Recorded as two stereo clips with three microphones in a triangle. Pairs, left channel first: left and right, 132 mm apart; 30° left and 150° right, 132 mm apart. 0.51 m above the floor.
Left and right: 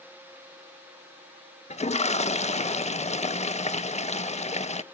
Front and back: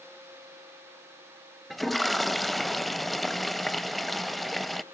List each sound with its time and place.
1.7 s a toilet flushing: 120° left, 0.6 m